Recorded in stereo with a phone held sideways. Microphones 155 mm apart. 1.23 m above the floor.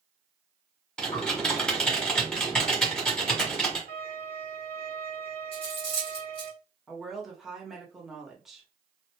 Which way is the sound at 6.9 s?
Centre (ahead or behind).